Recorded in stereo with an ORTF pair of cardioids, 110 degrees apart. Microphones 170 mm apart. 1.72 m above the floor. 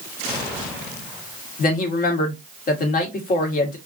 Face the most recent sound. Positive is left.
turn(degrees=55)